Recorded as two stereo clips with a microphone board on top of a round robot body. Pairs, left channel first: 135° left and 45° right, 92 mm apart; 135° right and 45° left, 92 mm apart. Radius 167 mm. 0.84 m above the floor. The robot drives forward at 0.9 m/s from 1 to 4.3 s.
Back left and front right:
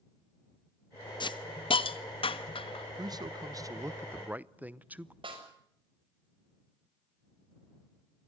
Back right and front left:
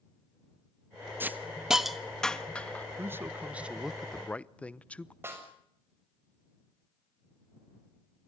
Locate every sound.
1.2 s a hiss: 110° left, 1.3 m; by 2.9 s 150° left, 2.5 m
3.0 s a man speaking: 15° right, 1.6 m; by 5.1 s 85° right, 1.0 m
5.2 s a snare drum: 20° right, 6.5 m